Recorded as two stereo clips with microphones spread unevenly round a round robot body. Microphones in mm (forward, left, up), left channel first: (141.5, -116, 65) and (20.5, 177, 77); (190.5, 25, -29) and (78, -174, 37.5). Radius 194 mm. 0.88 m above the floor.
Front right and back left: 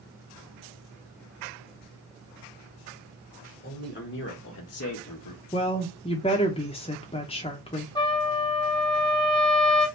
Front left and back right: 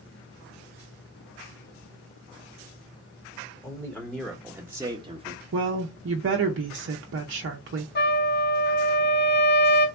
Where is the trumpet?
10° left, 1.0 m.